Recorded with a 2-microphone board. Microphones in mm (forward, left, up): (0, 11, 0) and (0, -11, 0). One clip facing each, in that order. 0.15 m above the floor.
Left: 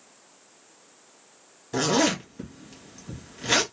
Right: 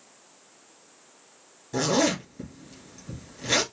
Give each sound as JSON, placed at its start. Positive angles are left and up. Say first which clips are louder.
{"t": 1.7, "sound": "a zipper", "louder": "left 1 dB", "side_deg": 20, "distance_m": 1.8}